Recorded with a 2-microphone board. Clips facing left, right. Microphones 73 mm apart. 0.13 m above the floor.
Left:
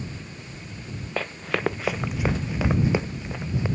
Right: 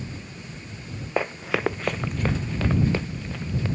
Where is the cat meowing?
No cat meowing in this recording.